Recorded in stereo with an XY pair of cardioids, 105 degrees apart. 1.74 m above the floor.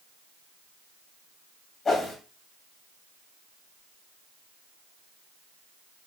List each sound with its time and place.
1.9 s a whoosh: 40° left, 1.7 m